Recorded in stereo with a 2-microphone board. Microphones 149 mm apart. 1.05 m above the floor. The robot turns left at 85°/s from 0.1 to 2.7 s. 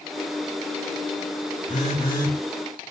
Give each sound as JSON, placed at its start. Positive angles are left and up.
{"t": 1.7, "sound": "a phone buzzing", "azimuth_deg": 70, "distance_m": 1.8}